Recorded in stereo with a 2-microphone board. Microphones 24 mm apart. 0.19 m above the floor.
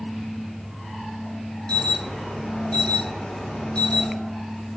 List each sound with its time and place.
1.7 s an alarm: 45° left (ahead or behind), 7 m